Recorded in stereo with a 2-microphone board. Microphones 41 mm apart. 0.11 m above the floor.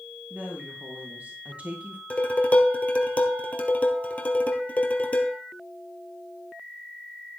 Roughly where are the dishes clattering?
Left.